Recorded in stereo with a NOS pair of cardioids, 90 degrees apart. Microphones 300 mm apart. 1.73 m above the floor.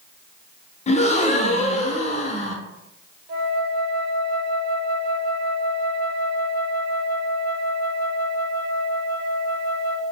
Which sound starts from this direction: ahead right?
A flute, at 3.3 s.